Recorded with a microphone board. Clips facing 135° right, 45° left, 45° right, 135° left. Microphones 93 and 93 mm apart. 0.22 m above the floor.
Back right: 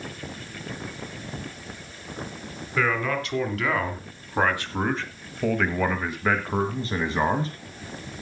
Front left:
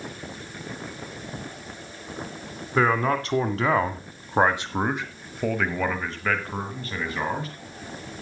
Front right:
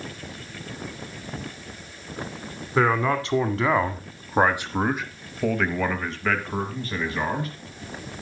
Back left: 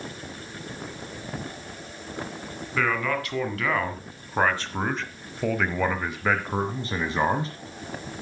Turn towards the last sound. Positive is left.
turn(degrees=180)